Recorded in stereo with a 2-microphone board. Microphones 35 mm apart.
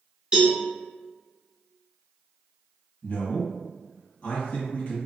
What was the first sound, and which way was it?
A cowbell, 25° right (ahead or behind).